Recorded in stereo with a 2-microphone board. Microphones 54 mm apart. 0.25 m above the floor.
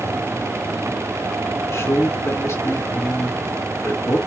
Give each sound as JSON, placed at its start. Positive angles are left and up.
{"t": 1.7, "sound": "a man speaking", "side_deg": 60, "distance_m": 3.0}